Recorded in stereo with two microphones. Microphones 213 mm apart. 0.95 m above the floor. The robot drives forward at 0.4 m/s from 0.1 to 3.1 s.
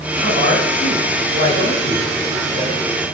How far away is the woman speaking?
About 3 m.